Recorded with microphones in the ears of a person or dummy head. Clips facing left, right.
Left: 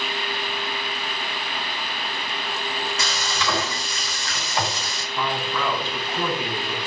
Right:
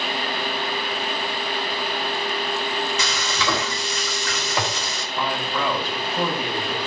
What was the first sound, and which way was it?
Frying, 50° right (ahead or behind).